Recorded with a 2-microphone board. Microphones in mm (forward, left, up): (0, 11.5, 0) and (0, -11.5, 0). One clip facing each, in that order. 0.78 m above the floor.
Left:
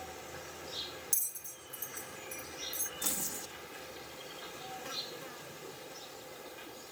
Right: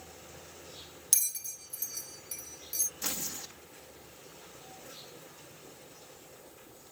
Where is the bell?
75° right (ahead or behind).